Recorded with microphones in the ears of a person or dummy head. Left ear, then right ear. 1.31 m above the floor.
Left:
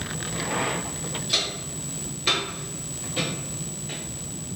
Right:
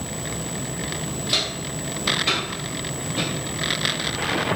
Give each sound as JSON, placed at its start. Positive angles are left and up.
{"t": 1.3, "sound": "footsteps", "side_deg": -5, "distance_m": 1.3}